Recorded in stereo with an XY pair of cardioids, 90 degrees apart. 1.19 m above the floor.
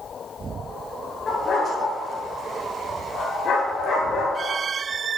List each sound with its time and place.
1.3 s a dog barking: 55° left, 9.5 m; by 4.6 s 75° left, 10 m